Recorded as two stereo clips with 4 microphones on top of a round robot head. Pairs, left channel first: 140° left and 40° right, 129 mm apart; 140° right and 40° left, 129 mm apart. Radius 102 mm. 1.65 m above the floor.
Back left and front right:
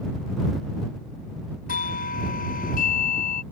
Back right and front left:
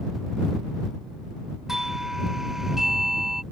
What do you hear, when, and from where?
1.7 s a doorbell: 125° left